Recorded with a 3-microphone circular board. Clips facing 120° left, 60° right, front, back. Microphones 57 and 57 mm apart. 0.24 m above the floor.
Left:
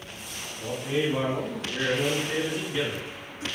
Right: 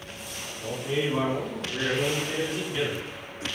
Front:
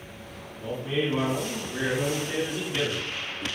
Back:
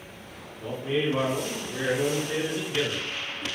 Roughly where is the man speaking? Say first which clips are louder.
Left 1 dB, back 1 dB; behind left.